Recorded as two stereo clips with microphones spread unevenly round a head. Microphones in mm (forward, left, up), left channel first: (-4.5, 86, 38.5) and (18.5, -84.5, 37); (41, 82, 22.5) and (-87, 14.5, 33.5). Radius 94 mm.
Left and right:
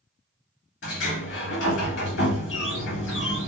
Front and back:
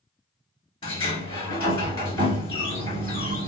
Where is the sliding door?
80° left, 2.0 m.